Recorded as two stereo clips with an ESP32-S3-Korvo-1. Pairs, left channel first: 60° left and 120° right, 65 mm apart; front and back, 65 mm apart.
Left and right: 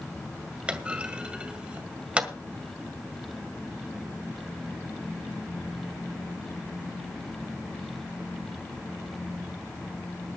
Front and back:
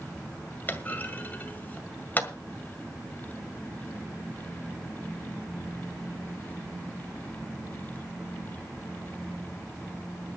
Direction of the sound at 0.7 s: 55° right.